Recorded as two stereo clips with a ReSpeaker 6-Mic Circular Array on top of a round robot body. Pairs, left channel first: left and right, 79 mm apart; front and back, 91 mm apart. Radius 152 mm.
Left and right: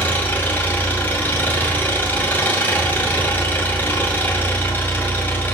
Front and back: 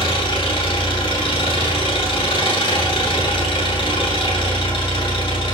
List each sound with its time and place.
0.0 s an engine running: 25° left, 2.5 m